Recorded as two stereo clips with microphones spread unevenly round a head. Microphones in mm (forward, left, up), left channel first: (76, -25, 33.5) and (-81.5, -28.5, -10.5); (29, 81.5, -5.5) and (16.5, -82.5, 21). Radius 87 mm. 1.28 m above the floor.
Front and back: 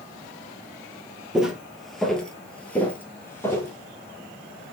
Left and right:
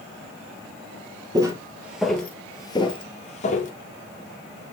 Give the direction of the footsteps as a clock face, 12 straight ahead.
2 o'clock.